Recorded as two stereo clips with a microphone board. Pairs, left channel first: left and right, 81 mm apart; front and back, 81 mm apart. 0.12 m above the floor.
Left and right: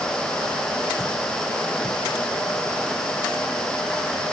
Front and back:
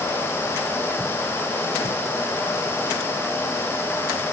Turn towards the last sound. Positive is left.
No sound to turn to.